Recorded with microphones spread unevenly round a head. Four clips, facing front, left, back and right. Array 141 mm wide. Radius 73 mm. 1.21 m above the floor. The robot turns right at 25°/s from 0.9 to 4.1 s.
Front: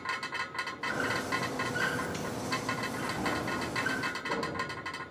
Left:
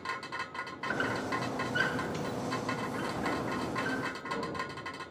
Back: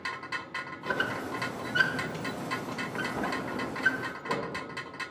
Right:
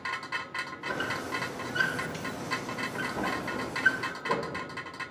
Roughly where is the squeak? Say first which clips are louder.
Left 1 dB, back 1 dB; behind.